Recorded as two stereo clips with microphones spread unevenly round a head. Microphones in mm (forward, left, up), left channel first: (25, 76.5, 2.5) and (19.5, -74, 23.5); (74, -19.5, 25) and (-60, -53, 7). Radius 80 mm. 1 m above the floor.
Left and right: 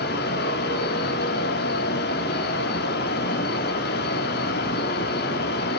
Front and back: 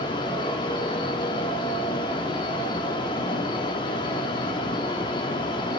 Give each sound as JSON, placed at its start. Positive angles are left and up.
{"t": 0.0, "sound": "a fan", "azimuth_deg": 80, "distance_m": 1.9}